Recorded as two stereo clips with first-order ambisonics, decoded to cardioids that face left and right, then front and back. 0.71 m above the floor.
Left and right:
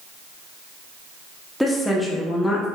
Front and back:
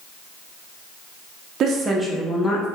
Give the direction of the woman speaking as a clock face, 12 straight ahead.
6 o'clock.